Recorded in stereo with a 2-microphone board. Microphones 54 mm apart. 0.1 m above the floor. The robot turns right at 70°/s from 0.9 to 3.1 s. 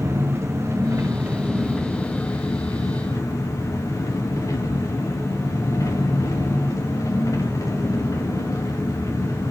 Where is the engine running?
55° right, 3.5 m; by 9.5 s 100° left, 3.5 m.